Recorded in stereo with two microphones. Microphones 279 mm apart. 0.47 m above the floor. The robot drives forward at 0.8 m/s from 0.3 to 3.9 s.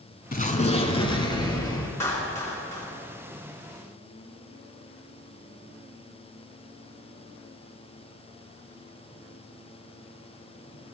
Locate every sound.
0.3 s an explosion: 30° left (ahead or behind), 0.9 m; by 1.9 s 15° left (ahead or behind), 2 m
2.0 s a clap: 10° left (ahead or behind), 5 m